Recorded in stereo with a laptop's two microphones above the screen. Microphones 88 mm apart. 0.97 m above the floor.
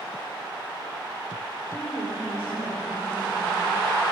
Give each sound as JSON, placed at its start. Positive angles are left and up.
{"t": 1.7, "sound": "a woman speaking", "side_deg": 80, "distance_m": 4.0}